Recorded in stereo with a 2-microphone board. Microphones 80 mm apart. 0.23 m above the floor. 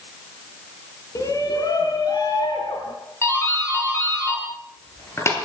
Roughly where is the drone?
No drone in this recording.